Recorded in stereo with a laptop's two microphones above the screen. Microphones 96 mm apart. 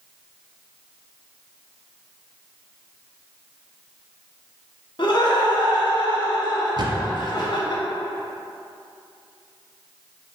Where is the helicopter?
I don't hear a helicopter.